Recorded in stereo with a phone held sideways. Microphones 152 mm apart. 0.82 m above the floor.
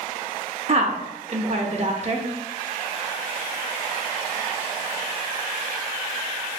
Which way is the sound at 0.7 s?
50° right (ahead or behind).